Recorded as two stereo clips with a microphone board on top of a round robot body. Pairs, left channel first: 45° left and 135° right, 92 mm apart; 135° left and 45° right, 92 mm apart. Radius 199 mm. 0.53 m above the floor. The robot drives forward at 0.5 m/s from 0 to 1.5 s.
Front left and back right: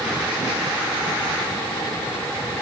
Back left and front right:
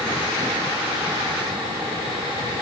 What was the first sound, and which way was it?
Only background noise.